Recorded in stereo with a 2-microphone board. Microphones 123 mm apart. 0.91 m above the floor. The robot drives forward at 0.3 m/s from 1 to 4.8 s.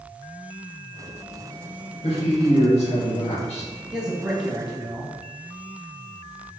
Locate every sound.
2.0 s a man speaking: 55° left (ahead or behind), 1.5 m; by 3.7 s 60° left (ahead or behind), 1.4 m
3.9 s a man speaking: 5° right (ahead or behind), 0.8 m